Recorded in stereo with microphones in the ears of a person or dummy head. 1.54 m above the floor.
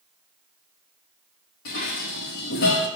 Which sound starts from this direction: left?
Dishes clattering, at 1.6 s.